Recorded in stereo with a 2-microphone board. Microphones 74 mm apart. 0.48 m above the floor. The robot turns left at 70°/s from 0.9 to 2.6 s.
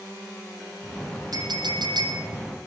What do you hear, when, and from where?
1.3 s a clink: 55° right, 9.5 m; by 2.2 s 120° right, 9.5 m